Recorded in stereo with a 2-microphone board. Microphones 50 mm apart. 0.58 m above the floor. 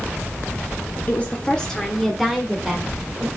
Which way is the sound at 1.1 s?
30° left (ahead or behind).